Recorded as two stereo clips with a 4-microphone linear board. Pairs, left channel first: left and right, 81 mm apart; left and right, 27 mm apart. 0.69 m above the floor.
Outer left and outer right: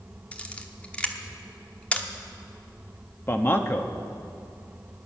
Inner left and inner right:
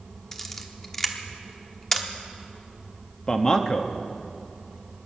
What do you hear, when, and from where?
0.3 s a camera shutter: 15° left (ahead or behind), 1.1 m
3.3 s a man speaking: 30° left (ahead or behind), 1.0 m